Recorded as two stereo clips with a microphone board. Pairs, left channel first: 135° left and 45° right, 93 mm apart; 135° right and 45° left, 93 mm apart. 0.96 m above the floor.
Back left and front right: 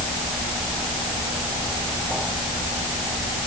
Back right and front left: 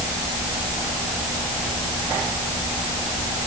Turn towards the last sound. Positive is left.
No sound to turn to.